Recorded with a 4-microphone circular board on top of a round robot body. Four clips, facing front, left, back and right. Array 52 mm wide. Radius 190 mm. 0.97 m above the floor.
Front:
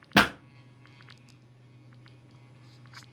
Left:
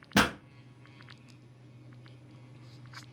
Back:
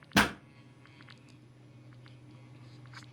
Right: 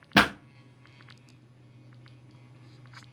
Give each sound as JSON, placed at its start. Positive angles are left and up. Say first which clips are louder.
{"t": 0.1, "sound": "a pop", "louder": "right 4 dB, front 4 dB", "azimuth_deg": -50, "distance_m": 0.5}